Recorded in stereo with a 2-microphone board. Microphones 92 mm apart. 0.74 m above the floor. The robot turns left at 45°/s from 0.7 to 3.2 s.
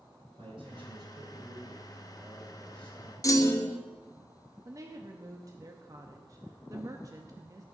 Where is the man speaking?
100° right, 3.5 m; by 3.1 s 150° left, 3.5 m.